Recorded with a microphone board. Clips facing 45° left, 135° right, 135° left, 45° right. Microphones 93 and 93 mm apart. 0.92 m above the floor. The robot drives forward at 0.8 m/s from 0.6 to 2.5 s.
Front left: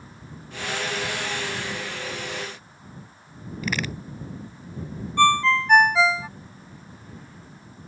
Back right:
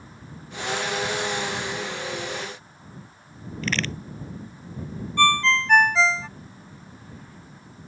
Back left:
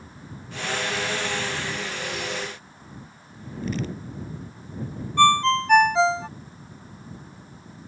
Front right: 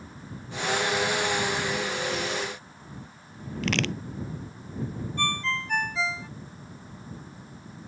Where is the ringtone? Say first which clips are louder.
Front left 2 dB, back left 13 dB; 125° left.